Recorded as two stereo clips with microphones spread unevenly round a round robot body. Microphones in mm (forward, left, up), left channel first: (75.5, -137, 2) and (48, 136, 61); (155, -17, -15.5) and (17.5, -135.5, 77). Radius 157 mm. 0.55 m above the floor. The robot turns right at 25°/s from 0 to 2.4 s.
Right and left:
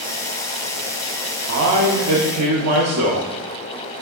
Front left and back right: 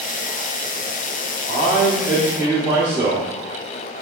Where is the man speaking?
90° left, 1.1 m; by 3.3 s 110° left, 1.1 m.